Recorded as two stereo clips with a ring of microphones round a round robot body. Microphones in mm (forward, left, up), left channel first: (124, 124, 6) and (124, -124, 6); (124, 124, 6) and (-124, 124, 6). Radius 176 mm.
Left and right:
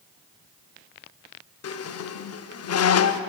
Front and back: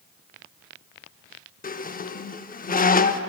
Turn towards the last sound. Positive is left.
turn(degrees=60)